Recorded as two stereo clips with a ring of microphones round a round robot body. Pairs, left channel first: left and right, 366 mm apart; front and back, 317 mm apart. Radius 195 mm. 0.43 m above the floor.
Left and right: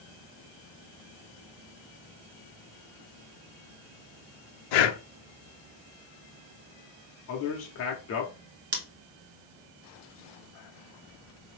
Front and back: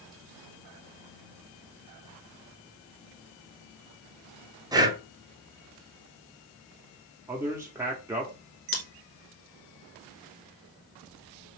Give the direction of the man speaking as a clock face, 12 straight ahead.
9 o'clock.